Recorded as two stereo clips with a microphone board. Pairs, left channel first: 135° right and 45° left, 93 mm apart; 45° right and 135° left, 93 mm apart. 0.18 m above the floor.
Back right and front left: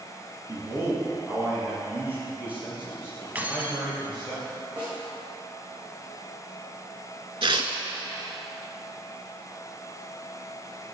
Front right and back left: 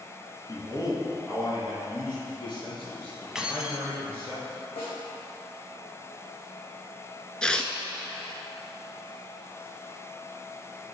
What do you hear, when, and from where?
0.5 s a man speaking: 5° right, 1.9 m; by 4.3 s 35° right, 3.5 m
3.4 s keys jangling: 70° left, 0.7 m
4.8 s a snare drum: 35° right, 2.5 m
7.4 s tearing paper: 35° left, 0.6 m